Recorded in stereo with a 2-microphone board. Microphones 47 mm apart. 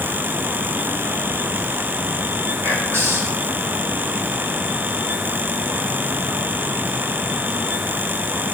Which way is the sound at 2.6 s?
65° right (ahead or behind).